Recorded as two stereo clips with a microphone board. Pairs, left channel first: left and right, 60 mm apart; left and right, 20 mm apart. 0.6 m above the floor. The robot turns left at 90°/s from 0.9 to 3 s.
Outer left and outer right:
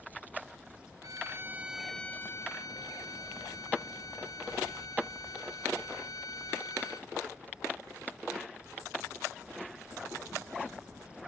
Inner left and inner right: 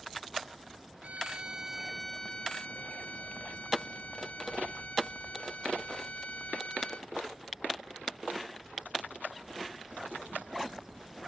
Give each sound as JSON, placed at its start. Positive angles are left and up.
{"t": 1.0, "sound": "a violin", "azimuth_deg": -105}